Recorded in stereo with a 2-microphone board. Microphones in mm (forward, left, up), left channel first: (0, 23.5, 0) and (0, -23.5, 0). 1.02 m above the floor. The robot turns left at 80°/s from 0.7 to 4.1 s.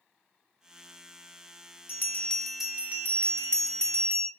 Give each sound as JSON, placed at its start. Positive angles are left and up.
{"t": 1.9, "sound": "a bell", "azimuth_deg": 50, "distance_m": 0.5}